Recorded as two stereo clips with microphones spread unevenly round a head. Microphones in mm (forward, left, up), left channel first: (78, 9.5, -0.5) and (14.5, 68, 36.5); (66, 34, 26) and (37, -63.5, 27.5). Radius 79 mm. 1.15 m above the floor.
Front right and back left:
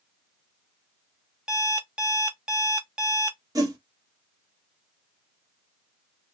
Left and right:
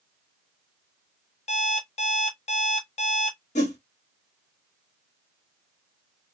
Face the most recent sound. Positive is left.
turn(degrees=100)